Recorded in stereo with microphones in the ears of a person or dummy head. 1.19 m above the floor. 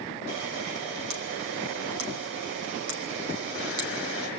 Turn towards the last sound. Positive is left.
turn(degrees=-75)  # may be behind; listen again after turning